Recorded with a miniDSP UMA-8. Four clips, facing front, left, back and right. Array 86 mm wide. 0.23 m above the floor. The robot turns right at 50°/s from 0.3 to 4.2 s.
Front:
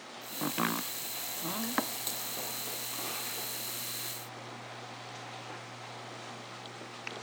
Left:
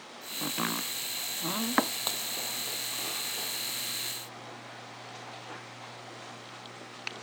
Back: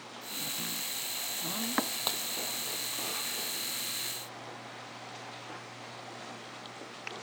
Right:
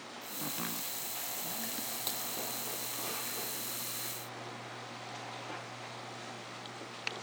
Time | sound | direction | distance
0.4 | chopping | 25° left | ?
2.1 | breaking glass | 145° left | ?